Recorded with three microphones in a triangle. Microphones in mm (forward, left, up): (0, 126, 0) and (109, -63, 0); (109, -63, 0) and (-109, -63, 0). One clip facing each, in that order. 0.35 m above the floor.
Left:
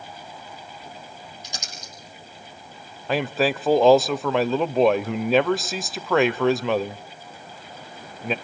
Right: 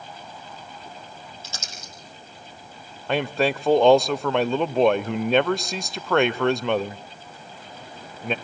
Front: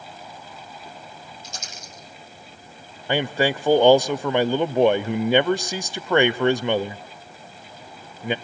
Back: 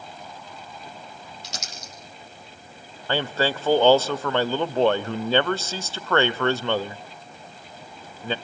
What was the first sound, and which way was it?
Crumpling, 165° right.